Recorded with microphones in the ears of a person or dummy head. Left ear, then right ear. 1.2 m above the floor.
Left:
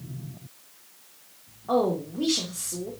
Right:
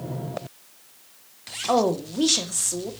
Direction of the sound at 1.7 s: 70° right (ahead or behind).